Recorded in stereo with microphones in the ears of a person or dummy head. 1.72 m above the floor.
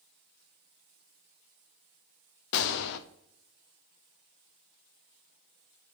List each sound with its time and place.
2.5 s a gunshot: 65° left (ahead or behind), 0.7 m